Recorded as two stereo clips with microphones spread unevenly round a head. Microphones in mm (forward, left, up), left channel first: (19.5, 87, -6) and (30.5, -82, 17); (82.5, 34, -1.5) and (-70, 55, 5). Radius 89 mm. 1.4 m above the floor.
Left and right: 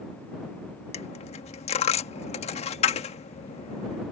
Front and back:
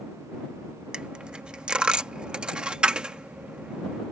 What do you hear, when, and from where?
0.9 s a dropped coin: 100° left